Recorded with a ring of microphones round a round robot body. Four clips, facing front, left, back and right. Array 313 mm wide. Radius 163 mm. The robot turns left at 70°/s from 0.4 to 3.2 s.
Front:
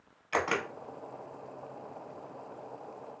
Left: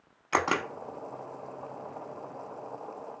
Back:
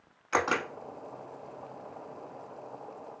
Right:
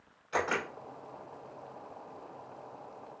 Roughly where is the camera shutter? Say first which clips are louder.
Left 4 dB, back 2 dB; left.